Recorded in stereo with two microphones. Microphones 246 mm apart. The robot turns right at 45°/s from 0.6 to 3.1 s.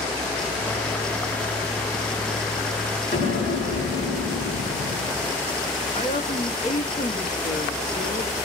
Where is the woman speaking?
25° left (ahead or behind), 1.3 m.